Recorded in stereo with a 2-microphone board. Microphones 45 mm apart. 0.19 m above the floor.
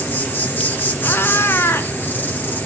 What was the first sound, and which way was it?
An insect, 40° left (ahead or behind).